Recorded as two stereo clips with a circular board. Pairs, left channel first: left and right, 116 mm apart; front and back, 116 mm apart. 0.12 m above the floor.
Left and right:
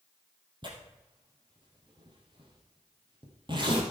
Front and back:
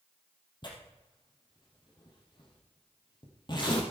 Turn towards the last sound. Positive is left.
turn(degrees=-45)